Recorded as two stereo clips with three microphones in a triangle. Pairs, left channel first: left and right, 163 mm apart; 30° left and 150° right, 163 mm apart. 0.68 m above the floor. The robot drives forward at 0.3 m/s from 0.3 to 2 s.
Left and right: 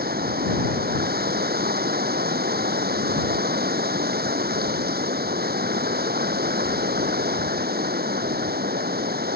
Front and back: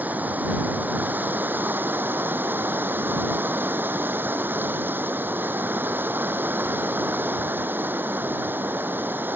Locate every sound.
0.0 s running water: 70° right